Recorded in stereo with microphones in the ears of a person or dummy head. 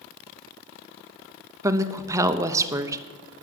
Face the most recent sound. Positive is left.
turn(degrees=-15)  # may be behind; listen again after turning